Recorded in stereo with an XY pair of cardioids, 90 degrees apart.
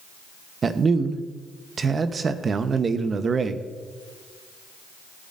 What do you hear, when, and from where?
0.6 s a man speaking: 45° right, 0.9 m